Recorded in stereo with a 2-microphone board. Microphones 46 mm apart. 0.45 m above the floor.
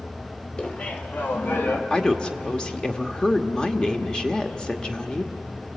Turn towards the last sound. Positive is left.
turn(degrees=20)  # may be behind; listen again after turning